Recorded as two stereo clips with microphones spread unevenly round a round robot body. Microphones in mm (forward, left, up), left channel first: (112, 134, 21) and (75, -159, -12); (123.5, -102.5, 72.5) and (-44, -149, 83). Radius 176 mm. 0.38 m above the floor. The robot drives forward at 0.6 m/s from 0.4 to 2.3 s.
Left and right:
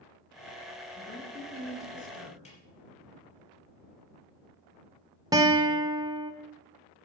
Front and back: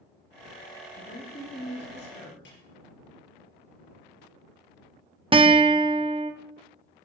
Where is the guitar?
145° right, 0.8 m.